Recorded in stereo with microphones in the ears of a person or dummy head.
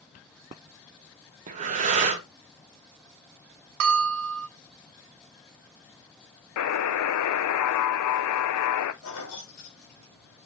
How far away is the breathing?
About 0.8 m.